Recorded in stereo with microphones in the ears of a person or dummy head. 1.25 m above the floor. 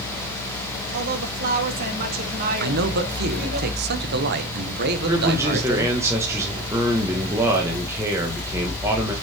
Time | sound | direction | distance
0.9 | a woman speaking | 55° right (ahead or behind) | 2 m
2.6 | a man speaking | 55° right (ahead or behind) | 1.2 m
4.9 | a man speaking | 15° right (ahead or behind) | 1.5 m